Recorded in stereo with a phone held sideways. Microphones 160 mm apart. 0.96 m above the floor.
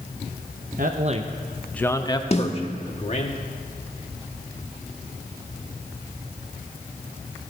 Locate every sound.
0.8 s a man speaking: 60° right (ahead or behind), 0.9 m; by 3.3 s 45° left (ahead or behind), 2 m
2.3 s a snare drum: 40° left (ahead or behind), 1.3 m